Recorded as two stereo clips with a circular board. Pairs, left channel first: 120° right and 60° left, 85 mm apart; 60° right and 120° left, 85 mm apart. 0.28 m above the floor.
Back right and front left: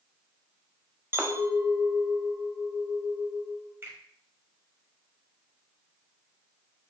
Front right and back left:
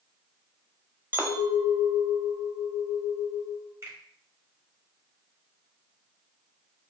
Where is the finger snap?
100° left, 0.9 m.